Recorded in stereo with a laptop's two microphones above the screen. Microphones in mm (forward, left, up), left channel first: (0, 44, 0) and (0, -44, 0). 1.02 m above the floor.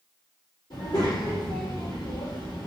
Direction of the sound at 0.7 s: 50° left (ahead or behind).